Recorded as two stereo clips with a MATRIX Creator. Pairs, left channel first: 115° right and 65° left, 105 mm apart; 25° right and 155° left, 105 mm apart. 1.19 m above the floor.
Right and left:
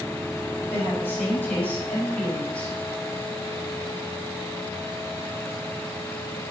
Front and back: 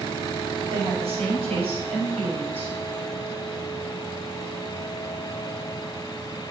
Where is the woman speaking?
175° left, 5.5 m; by 2.8 s 165° left, 4 m.